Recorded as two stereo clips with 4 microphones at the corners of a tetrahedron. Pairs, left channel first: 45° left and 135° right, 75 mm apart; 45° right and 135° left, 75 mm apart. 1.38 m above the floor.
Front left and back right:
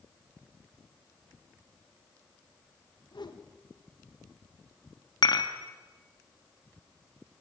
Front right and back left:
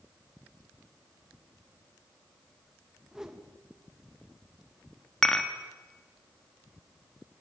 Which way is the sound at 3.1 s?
50° left.